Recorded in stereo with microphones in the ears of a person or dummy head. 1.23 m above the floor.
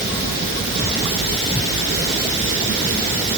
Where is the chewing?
I don't hear chewing.